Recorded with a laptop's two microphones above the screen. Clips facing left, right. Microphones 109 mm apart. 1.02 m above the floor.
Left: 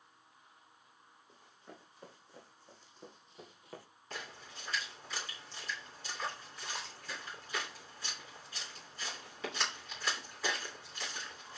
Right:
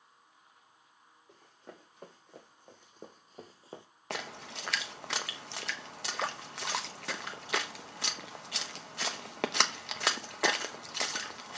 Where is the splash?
75° right (ahead or behind), 0.7 m.